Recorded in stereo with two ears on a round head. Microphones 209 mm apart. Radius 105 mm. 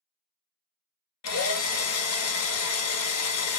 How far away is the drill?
About 0.7 m.